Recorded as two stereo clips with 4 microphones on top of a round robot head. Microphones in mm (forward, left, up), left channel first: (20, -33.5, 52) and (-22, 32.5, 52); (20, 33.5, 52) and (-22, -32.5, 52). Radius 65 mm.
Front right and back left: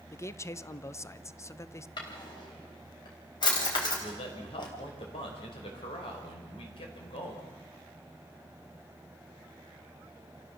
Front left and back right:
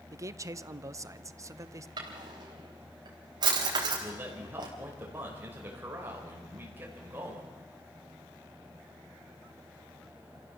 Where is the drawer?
90° right, 3.5 m.